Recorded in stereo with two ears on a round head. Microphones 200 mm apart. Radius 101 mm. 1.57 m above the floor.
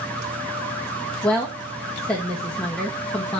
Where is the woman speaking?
5° left (ahead or behind), 1.5 m.